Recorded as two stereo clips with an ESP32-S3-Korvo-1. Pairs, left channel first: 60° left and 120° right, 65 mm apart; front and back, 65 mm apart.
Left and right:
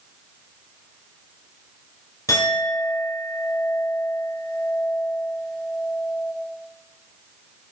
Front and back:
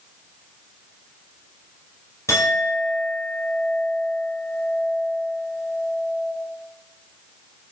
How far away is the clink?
About 4 m.